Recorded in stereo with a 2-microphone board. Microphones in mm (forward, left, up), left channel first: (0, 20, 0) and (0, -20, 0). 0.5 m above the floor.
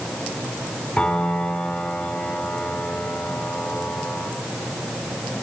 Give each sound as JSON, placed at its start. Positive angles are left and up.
{"t": 1.0, "sound": "a piano", "side_deg": 35, "distance_m": 3.5}